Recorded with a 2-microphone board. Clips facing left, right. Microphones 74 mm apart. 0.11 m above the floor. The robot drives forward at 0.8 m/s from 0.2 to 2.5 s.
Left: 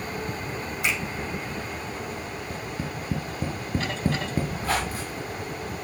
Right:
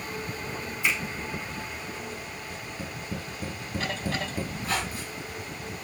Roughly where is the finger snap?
Left.